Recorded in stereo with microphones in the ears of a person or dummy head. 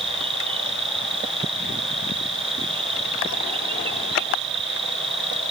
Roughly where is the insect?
Right.